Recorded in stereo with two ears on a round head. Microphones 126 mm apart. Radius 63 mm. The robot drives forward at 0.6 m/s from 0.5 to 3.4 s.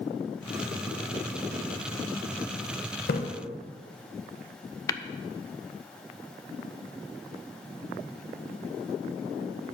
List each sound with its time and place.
3.1 s a splash: 70° left (ahead or behind), 1.1 m
4.9 s tapping: 25° left (ahead or behind), 0.5 m